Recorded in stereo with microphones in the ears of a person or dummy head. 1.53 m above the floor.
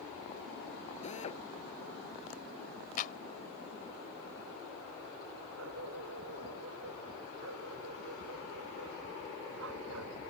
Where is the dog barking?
75° right (ahead or behind).